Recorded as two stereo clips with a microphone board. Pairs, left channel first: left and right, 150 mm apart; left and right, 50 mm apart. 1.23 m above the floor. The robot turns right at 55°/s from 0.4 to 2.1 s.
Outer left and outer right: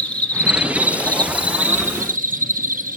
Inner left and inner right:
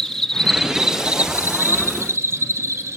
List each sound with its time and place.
0.0 s an insect: 170° left, 1.5 m; by 3.0 s 95° right, 1.5 m